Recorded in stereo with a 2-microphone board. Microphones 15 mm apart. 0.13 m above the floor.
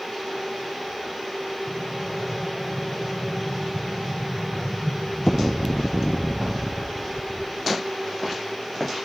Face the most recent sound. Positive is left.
turn(degrees=35)  # may be behind; listen again after turning